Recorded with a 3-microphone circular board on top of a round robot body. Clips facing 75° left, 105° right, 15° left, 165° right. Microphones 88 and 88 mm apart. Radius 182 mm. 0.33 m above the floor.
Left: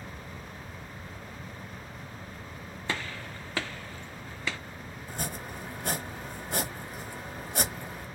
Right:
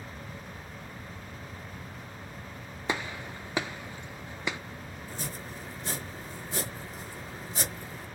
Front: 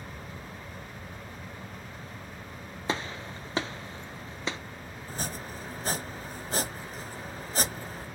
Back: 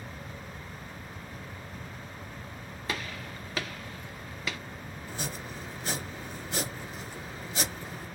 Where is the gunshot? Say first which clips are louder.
Right 2 dB, front 4 dB; 35° right, 0.7 m.